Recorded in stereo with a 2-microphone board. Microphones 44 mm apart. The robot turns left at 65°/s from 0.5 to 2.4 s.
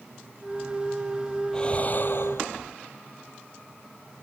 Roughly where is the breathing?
Behind.